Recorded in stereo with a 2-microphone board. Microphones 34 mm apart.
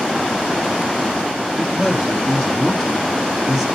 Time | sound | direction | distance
1.6 | a man speaking | 5° right (ahead or behind) | 3 m